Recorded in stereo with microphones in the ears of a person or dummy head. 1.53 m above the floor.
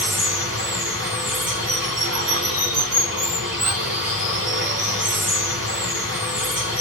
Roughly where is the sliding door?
I don't hear a sliding door.